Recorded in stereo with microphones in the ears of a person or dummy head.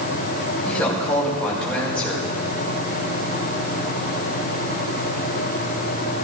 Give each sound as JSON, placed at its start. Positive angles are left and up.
{"t": 0.7, "sound": "a woman speaking", "side_deg": 10, "distance_m": 5.0}